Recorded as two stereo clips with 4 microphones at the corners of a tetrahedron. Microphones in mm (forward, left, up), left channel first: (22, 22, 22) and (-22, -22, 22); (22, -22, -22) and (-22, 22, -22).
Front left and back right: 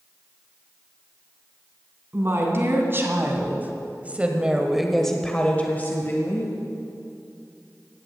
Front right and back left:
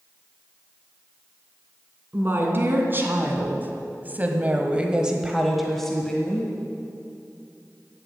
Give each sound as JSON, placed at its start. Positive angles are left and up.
{"t": 2.1, "sound": "a woman speaking", "azimuth_deg": -175, "distance_m": 3.0}